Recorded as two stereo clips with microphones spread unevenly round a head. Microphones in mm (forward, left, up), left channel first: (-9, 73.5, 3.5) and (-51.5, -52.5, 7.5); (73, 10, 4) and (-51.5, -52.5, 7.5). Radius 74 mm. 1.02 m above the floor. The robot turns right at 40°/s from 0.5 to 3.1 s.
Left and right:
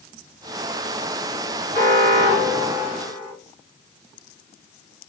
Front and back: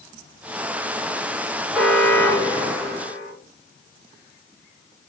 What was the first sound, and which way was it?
An alarm, 65° right.